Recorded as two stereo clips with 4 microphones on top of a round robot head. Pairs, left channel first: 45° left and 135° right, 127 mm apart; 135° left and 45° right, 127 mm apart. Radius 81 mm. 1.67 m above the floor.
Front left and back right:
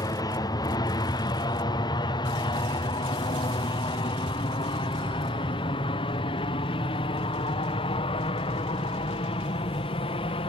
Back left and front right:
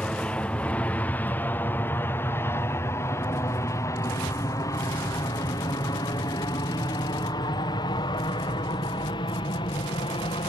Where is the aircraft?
60° left; by 10.5 s 85° left.